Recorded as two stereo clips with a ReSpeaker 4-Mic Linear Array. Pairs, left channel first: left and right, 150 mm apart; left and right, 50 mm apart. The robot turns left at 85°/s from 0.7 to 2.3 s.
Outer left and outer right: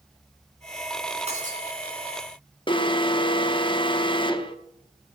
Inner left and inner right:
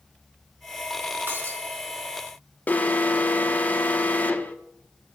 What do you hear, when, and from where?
1.3 s breaking glass: 45° right (ahead or behind), 3 m; by 1.6 s 75° right (ahead or behind), 3 m
2.7 s an alarm: 35° left (ahead or behind), 1.0 m